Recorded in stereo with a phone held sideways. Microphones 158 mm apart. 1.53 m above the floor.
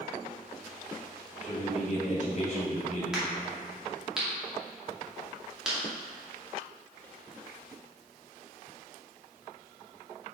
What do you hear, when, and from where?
1.4 s a man speaking: 45° left (ahead or behind), 2.5 m
3.1 s a crack: 5° right (ahead or behind), 2.5 m